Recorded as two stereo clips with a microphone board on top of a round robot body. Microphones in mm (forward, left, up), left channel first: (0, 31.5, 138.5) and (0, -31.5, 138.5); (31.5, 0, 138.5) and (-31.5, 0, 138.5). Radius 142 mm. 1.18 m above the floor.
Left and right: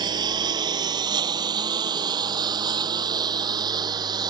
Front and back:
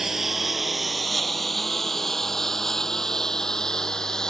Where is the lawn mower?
95° right; by 4.3 s 80° right.